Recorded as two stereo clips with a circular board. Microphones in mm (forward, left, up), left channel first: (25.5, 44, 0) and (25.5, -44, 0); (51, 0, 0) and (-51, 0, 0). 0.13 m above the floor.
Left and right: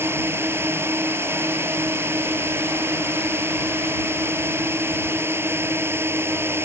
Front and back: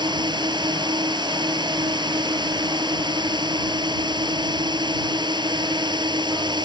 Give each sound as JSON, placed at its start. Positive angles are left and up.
{"t": 0.0, "sound": "a drone", "azimuth_deg": -150}